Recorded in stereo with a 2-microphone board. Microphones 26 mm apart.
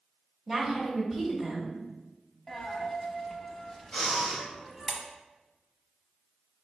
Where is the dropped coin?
10° left (ahead or behind), 0.8 m.